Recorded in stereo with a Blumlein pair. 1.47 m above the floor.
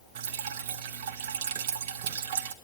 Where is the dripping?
55° right, 1.0 m.